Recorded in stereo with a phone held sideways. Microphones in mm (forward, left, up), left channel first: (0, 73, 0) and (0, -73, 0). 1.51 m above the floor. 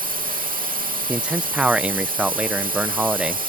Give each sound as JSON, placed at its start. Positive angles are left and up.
{"t": 0.0, "sound": "a drone", "side_deg": -75}
{"t": 1.1, "sound": "a man speaking", "side_deg": -5}